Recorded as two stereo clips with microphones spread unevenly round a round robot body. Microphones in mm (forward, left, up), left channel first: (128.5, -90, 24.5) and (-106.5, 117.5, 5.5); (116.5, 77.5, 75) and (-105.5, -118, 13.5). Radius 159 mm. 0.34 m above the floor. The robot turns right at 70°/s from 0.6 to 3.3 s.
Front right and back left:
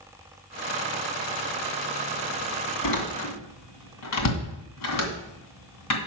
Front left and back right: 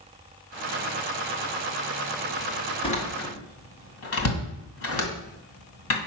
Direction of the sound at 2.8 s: 35° right.